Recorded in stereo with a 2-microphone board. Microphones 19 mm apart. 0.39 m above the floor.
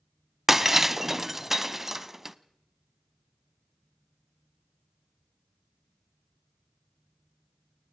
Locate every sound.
0.5 s breaking glass: 15° right (ahead or behind), 0.9 m